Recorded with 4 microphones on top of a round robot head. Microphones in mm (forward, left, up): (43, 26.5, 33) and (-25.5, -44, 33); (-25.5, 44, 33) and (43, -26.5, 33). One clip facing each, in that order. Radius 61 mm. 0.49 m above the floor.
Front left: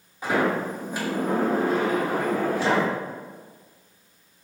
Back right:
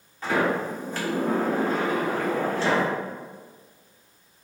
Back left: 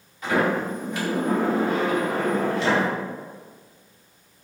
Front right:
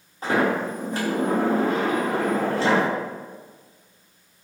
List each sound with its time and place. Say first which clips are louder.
0.2 s a sliding door: front left 1 dB, front right 1 dB; 20° right, 1.1 m